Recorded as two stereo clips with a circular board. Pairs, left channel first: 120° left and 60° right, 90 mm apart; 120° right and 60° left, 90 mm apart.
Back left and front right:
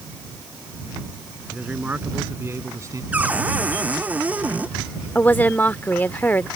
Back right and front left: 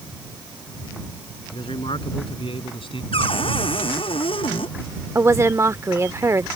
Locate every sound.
1.5 s a man speaking: 135° right; by 3.0 s 110° right
3.1 s a cupboard door: 135° right
5.2 s a woman speaking: 70° left